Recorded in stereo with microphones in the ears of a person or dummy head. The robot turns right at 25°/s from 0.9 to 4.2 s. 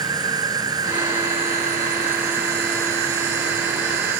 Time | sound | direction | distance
0.0 | an insect | 155° right | ?